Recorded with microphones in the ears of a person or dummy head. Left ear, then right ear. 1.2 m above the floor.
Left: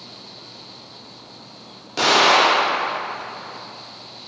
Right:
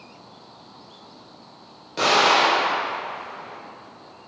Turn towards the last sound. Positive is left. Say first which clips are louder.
# left 3 dB
turn(degrees=15)  # may be behind; listen again after turning